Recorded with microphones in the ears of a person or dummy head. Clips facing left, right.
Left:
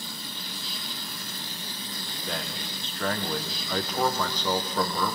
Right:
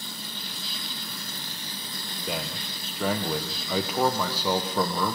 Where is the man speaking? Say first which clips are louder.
Right 2 dB; 10° right (ahead or behind), 1.1 m.